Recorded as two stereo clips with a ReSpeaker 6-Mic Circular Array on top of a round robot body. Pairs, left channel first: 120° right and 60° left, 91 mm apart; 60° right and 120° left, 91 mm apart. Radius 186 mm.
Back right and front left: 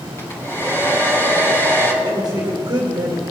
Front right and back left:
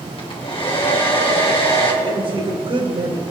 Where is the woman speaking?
100° left, 2.5 m.